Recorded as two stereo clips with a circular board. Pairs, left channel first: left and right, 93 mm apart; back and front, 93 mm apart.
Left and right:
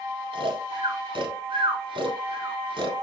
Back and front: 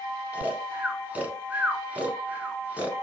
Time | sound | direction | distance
0.3 | snoring | 75° right | 1.0 m